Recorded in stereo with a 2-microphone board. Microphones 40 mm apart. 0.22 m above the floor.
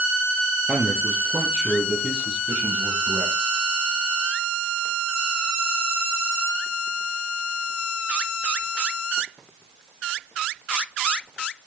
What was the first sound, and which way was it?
A man speaking, 15° right (ahead or behind).